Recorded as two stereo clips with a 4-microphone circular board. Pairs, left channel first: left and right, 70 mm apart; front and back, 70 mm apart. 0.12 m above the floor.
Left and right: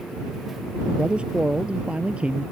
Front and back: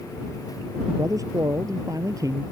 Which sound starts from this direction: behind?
A man speaking, at 0.9 s.